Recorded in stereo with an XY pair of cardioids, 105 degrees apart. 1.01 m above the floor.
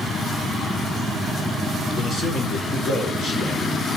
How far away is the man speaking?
About 3.5 m.